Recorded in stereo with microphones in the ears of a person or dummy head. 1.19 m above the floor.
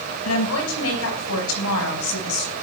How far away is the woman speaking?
About 9 m.